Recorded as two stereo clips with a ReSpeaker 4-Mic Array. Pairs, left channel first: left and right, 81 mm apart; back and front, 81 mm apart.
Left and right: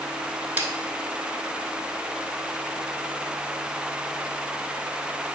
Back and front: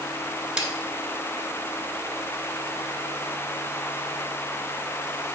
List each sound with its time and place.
0.6 s a snare drum: 65° right, 1.1 m